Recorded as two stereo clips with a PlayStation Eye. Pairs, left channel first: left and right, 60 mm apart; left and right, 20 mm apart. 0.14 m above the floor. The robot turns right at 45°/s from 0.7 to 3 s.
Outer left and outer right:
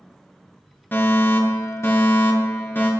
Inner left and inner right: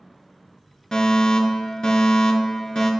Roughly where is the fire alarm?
Ahead left.